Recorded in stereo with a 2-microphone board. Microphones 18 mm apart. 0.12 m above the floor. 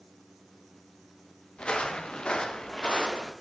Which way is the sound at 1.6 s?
85° left.